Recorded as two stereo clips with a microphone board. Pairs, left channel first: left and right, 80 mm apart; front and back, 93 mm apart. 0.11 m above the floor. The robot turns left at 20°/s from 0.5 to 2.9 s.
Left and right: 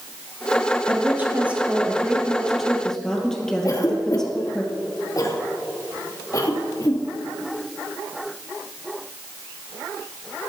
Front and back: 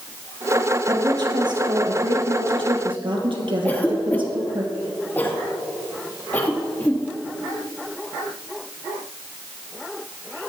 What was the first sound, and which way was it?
A woman speaking, 145° right.